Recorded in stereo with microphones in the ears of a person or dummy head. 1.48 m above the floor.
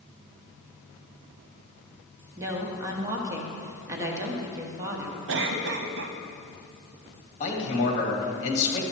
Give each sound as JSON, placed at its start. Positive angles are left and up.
{"t": 2.4, "sound": "a woman speaking", "side_deg": -15, "distance_m": 1.2}
{"t": 5.3, "sound": "a cough", "side_deg": -65, "distance_m": 0.9}
{"t": 7.4, "sound": "a man speaking", "side_deg": 35, "distance_m": 2.5}